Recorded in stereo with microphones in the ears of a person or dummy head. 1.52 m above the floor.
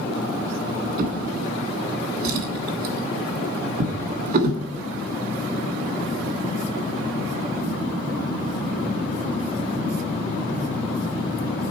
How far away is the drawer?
About 1.6 m.